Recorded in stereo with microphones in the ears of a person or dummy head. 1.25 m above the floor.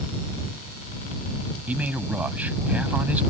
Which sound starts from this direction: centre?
A man speaking, at 1.7 s.